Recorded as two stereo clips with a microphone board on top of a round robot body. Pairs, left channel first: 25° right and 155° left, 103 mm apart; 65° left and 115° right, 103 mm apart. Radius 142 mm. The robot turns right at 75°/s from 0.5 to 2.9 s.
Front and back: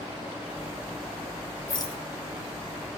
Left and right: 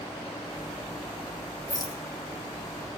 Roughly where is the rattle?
Ahead.